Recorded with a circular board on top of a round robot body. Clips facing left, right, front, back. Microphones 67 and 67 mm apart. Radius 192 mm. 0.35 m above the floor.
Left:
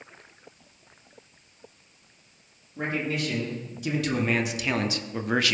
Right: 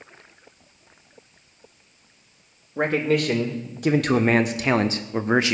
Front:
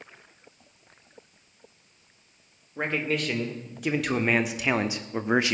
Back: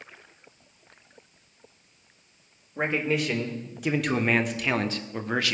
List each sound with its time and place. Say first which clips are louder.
2.8 s a man speaking: right 8 dB, back 2 dB; 100° right, 2.5 m; by 5.5 s 45° right, 1.3 m